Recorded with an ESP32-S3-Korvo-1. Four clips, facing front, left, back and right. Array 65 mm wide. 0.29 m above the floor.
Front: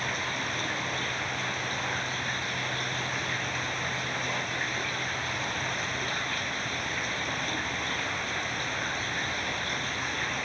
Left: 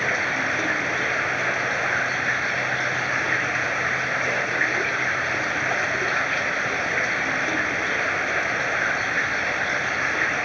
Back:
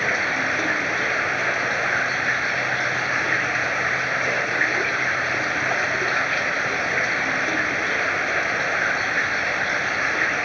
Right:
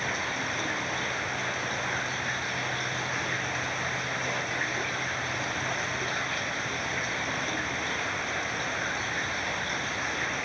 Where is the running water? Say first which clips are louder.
Left 8 dB, back 10 dB; 145° left.